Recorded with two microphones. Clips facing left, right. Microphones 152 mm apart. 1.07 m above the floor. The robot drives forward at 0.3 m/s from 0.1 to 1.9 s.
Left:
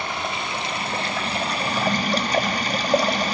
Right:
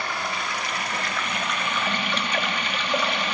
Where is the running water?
25° left (ahead or behind), 1.1 m; by 3.4 s 40° left (ahead or behind), 0.7 m.